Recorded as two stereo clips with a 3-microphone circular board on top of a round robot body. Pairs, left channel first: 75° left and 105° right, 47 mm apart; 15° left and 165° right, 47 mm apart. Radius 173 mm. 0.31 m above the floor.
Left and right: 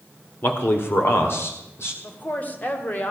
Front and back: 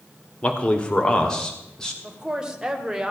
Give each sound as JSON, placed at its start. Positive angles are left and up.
{"t": 0.4, "sound": "a man speaking", "azimuth_deg": 70, "distance_m": 1.8}
{"t": 2.0, "sound": "a woman speaking", "azimuth_deg": 125, "distance_m": 2.0}